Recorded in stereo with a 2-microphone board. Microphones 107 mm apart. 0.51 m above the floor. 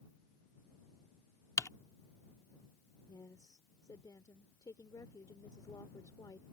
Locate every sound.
1.6 s typing on a keyboard: 30° left (ahead or behind)
3.1 s a woman speaking: 35° left (ahead or behind)